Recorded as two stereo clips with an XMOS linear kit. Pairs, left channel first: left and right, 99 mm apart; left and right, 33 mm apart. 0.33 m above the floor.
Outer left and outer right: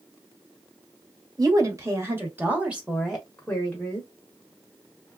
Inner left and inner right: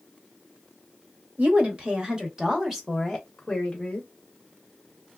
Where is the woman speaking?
40° right (ahead or behind), 1.5 m; by 4.1 s 25° left (ahead or behind), 1.3 m.